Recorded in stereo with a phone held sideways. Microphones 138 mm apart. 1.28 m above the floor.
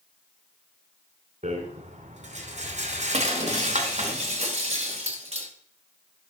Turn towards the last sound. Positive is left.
turn(degrees=-50)  # may be behind; listen again after turning